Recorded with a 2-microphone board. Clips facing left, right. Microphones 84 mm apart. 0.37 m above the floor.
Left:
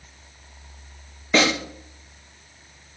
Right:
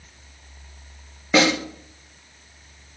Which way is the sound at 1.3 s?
10° right (ahead or behind).